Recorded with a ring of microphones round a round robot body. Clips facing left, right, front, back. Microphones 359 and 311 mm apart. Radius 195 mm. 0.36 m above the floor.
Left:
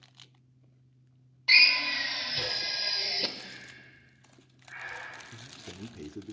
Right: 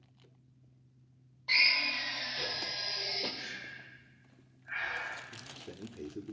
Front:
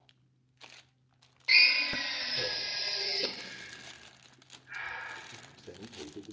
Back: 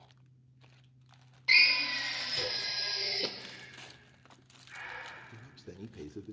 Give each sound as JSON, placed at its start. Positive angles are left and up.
{"t": 1.5, "sound": "a drill", "azimuth_deg": 100, "distance_m": 1.7}
{"t": 3.4, "sound": "breathing", "azimuth_deg": -60, "distance_m": 3.0}
{"t": 5.3, "sound": "a man speaking", "azimuth_deg": 135, "distance_m": 1.0}